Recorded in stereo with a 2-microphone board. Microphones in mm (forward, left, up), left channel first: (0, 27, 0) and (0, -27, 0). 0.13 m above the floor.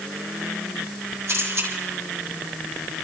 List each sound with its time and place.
1.3 s a camera shutter: 50° right (ahead or behind), 5.5 m